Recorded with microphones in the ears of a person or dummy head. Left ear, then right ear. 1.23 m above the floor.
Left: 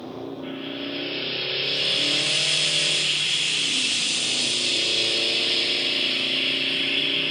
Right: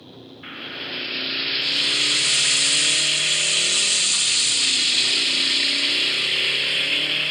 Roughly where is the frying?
Right.